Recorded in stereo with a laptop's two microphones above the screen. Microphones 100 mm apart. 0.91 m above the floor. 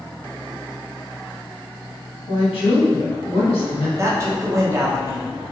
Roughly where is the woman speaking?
Left.